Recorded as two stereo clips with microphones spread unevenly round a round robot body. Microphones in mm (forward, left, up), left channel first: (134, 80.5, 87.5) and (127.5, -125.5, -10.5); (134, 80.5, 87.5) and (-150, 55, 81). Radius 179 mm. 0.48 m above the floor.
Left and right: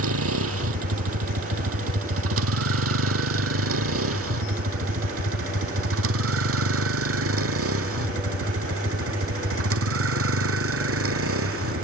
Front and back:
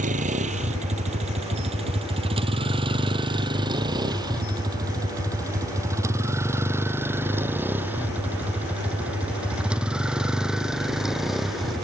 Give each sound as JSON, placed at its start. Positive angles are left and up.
{"t": 0.0, "sound": "a vehicle", "azimuth_deg": -105}